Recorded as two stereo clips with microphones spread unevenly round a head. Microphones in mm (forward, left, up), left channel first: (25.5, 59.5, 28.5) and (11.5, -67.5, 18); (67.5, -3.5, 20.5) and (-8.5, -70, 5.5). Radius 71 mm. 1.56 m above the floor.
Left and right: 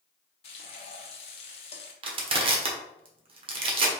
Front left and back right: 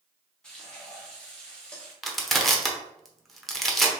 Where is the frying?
115° left, 0.7 m.